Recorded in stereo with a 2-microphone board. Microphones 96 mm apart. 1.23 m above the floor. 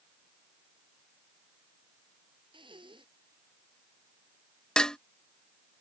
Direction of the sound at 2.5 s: 60° right (ahead or behind).